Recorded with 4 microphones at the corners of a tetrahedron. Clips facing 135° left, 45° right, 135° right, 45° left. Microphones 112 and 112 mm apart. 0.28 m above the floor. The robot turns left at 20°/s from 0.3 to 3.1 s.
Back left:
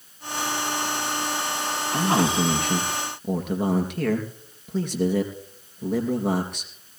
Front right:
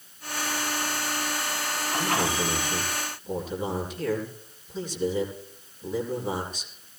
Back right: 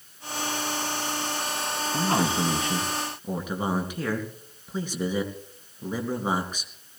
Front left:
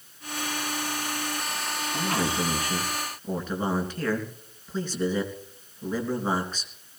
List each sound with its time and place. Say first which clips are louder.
1.9 s a man speaking: back left 5 dB, back right 3 dB; 170° left, 4 m; by 6.7 s 150° left, 4 m